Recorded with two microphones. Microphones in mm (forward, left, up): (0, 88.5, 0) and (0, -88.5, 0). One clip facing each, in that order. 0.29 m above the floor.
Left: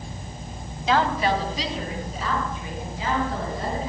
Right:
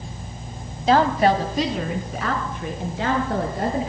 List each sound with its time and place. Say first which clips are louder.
0.9 s a woman speaking: right 5 dB; 40° right (ahead or behind), 1.5 m; by 3.9 s 75° right (ahead or behind), 5.5 m